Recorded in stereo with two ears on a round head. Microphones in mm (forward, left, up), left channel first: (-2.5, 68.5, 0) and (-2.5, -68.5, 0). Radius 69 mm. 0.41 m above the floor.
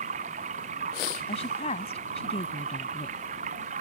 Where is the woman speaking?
45° left (ahead or behind).